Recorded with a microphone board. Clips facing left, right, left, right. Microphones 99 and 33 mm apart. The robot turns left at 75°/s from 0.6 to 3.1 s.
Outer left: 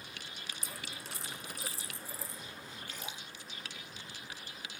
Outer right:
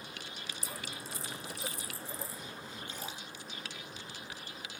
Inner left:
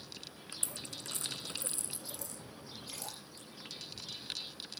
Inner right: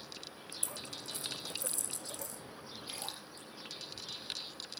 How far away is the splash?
About 8 m.